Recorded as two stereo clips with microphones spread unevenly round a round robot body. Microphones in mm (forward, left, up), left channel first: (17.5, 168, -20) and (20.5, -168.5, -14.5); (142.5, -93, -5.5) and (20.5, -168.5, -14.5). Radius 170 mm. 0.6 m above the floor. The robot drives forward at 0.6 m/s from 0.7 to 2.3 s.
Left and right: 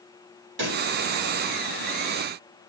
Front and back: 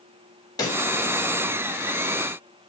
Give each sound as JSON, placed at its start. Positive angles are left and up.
{"t": 0.6, "sound": "a pop", "azimuth_deg": -35, "distance_m": 3.5}